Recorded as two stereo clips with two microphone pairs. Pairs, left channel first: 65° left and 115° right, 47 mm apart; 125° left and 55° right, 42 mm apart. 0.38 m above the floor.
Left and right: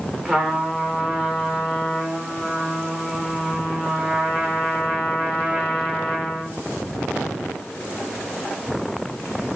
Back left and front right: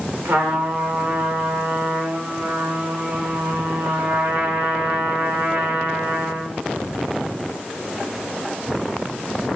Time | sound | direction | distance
0.2 | a trumpet | 40° right | 8 m